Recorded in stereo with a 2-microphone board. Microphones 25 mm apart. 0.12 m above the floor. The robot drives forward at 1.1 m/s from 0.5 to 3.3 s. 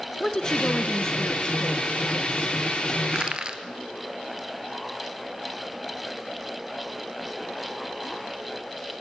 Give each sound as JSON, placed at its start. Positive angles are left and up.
{"t": 0.2, "sound": "a woman speaking", "side_deg": 25, "distance_m": 1.4}
{"t": 3.1, "sound": "crushing", "side_deg": -40, "distance_m": 1.5}